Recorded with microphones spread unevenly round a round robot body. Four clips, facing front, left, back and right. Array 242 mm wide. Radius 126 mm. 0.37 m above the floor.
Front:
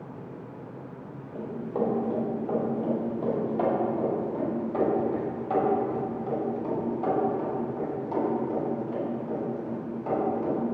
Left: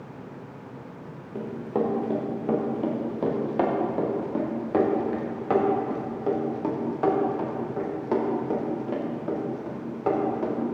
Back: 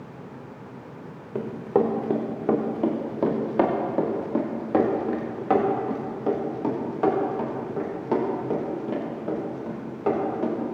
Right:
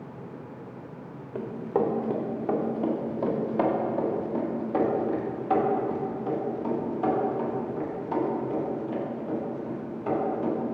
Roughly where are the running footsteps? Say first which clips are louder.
Right 1 dB, back 6 dB; behind.